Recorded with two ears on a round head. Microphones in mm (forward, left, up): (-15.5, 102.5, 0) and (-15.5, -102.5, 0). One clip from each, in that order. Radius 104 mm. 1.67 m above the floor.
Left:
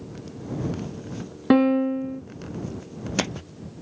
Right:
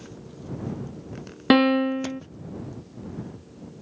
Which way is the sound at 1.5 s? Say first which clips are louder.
Right 1 dB; 75° right (ahead or behind).